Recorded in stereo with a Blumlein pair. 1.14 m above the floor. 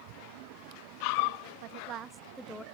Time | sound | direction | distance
1.6 | a woman speaking | 45° right | 0.8 m